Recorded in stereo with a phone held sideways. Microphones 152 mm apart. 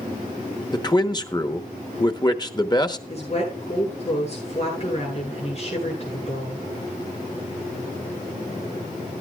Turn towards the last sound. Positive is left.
turn(degrees=45)  # may be behind; listen again after turning